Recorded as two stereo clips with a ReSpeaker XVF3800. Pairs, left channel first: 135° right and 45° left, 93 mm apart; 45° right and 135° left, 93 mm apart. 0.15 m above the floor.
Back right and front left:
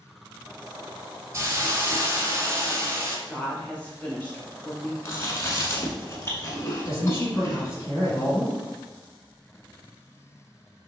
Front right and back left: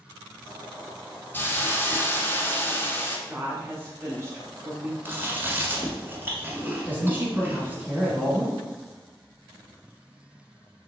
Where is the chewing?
170° right, 1.1 m.